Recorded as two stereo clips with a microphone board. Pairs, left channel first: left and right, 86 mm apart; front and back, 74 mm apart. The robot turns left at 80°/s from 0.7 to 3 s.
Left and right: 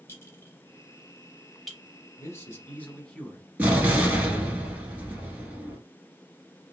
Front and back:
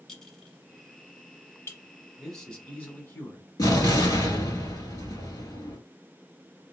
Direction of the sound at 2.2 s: 90° left.